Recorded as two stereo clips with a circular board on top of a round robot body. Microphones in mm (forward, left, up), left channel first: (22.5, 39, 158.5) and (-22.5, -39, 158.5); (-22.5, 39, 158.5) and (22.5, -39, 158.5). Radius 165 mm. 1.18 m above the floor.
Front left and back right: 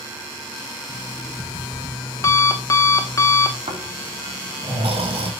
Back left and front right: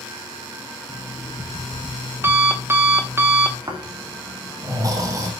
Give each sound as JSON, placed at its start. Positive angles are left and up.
{"t": 0.9, "sound": "an alarm clock", "azimuth_deg": 5, "distance_m": 0.8}
{"t": 3.7, "sound": "snoring", "azimuth_deg": -115, "distance_m": 2.5}